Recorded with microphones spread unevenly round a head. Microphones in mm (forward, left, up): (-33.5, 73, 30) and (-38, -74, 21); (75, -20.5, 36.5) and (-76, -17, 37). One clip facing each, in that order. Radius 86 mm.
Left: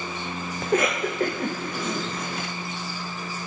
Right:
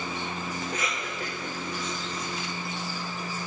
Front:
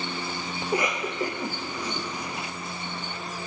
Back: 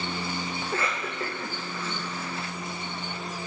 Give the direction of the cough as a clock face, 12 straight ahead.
10 o'clock.